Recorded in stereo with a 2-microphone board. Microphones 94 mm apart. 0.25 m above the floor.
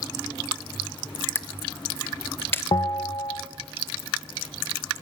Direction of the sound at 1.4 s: 25° left (ahead or behind).